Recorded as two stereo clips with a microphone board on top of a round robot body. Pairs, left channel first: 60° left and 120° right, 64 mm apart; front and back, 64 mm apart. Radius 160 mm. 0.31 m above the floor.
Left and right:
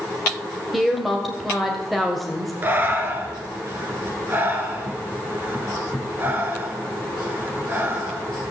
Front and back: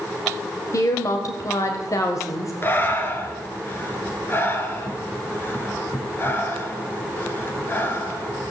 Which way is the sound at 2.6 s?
60° right.